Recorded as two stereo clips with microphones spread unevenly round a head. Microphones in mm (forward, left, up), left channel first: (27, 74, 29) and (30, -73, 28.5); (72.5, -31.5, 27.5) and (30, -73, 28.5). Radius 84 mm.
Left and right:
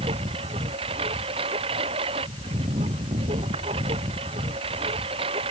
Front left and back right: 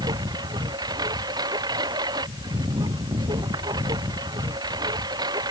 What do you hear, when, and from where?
0.0 s a lawn mower: 150° right